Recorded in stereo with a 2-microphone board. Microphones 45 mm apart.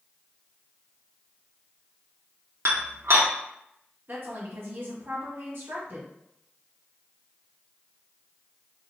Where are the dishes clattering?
80° right, 1.1 m.